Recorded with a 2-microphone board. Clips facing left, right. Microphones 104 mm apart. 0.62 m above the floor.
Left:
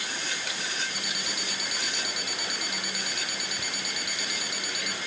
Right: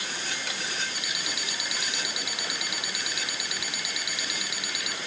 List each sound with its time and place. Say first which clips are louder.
0.9 s an alarm clock: even; 50° left (ahead or behind)